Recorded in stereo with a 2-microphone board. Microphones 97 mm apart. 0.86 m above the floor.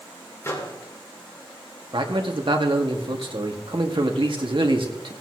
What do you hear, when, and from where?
0.4 s a microwave: 30° left (ahead or behind), 2.5 m
1.9 s a man speaking: 60° right (ahead or behind), 1.8 m